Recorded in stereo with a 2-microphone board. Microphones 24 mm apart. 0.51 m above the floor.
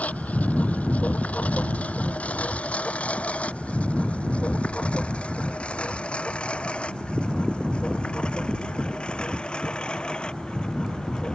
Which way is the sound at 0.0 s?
85° left.